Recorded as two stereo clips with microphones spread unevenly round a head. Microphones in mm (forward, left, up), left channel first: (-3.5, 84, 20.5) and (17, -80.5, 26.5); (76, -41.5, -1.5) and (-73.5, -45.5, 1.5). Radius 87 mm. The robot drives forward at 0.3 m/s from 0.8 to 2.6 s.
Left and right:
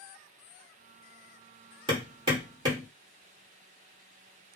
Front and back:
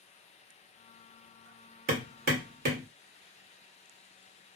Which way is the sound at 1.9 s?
145° right.